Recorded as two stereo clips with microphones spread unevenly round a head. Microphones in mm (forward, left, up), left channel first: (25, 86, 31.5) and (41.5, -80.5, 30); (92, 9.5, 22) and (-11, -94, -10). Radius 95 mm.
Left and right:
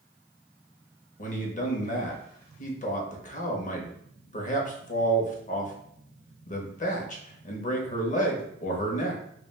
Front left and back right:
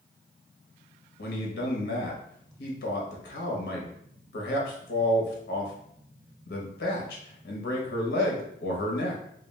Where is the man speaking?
60° left, 0.7 m.